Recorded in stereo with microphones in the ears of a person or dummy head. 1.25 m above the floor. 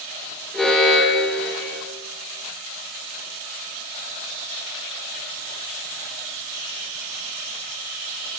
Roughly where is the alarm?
Centre.